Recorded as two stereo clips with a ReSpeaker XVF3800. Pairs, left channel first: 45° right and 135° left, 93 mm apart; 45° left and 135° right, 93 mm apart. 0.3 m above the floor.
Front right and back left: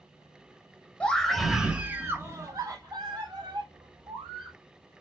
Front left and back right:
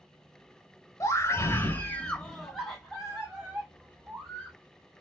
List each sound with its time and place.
1.0 s a scream: 25° left, 1.1 m; by 4.5 s 155° left, 2 m